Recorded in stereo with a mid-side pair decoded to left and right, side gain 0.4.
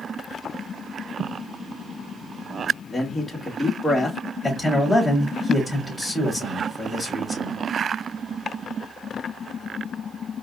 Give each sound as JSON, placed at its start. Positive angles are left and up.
{"t": 2.9, "sound": "a man speaking", "azimuth_deg": 30, "distance_m": 1.8}
{"t": 4.4, "sound": "a man speaking", "azimuth_deg": 10, "distance_m": 3.5}